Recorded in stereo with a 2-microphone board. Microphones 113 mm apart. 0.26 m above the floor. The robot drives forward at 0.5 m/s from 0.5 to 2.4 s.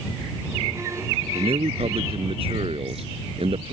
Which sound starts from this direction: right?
A man speaking, at 1.4 s.